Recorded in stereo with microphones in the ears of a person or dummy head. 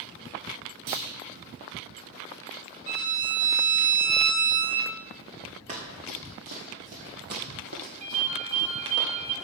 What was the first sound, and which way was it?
A clunk, 65° right (ahead or behind).